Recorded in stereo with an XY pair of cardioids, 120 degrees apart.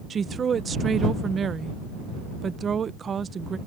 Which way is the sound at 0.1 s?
35° right.